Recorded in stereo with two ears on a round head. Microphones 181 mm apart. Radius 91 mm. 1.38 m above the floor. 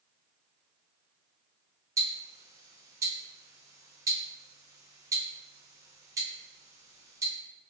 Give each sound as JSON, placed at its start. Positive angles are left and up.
{"t": 2.0, "sound": "ticking", "side_deg": -15, "distance_m": 0.6}